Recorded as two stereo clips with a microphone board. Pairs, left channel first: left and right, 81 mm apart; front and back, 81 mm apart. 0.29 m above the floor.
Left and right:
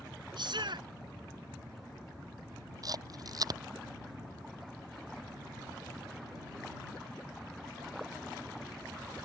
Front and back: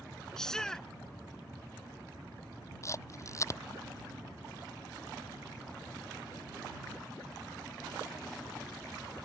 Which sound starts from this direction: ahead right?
A camera shutter, at 2.8 s.